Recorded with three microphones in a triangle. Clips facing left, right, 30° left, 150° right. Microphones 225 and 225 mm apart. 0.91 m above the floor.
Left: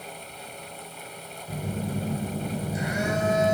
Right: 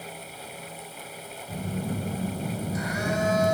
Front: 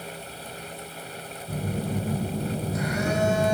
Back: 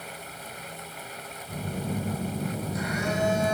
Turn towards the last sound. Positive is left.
turn(degrees=30)